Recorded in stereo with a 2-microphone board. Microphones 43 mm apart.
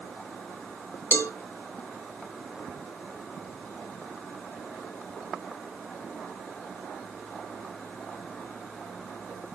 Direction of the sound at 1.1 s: 75° left (ahead or behind).